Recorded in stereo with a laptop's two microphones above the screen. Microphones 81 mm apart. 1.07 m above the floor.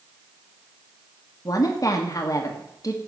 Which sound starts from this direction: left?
A woman speaking, at 1.4 s.